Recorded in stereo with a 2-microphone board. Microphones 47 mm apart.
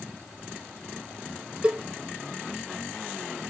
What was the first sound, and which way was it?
A cowbell, 20° right (ahead or behind).